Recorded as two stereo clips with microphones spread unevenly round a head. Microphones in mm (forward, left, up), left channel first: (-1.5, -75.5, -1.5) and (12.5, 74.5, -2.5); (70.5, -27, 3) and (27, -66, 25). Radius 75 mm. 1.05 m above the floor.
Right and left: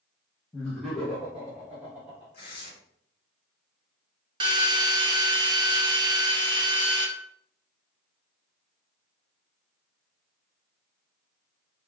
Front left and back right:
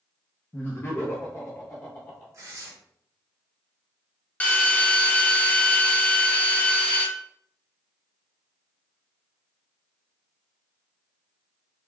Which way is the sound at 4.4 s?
40° left.